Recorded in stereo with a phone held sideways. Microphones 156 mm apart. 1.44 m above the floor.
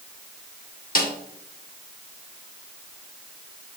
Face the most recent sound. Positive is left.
turn(degrees=55)  # may be behind; listen again after turning